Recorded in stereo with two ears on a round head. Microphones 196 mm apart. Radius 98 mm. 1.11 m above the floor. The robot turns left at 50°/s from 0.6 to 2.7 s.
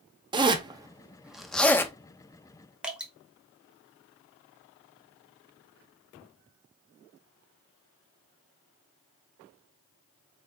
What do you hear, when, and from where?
0.3 s a zipper: 20° right (ahead or behind), 0.5 m; by 1.9 s 10° left (ahead or behind), 0.5 m
2.8 s dripping: 5° right (ahead or behind), 0.9 m